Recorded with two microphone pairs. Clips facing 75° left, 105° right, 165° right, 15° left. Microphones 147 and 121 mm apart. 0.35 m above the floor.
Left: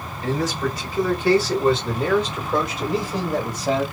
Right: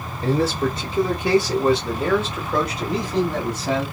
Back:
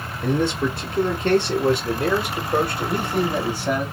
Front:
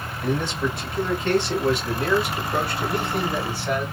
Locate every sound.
0.2 s a man speaking: 130° right, 1.1 m; by 3.8 s 125° left, 1.8 m